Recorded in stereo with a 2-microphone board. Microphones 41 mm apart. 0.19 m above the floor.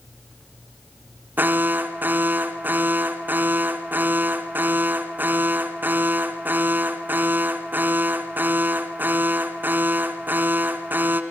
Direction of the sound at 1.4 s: 50° right (ahead or behind).